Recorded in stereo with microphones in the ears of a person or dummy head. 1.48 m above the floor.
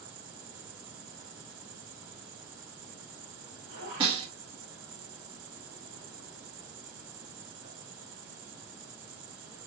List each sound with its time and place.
0.0 s an insect: 45° right (ahead or behind), 2.5 m
4.0 s a snare drum: 25° right (ahead or behind), 1.3 m